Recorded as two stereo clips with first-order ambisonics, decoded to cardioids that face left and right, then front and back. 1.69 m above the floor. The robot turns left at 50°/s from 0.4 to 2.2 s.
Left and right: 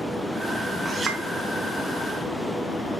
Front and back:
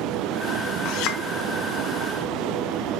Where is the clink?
10° right, 1.1 m; by 1.2 s 30° right, 1.1 m.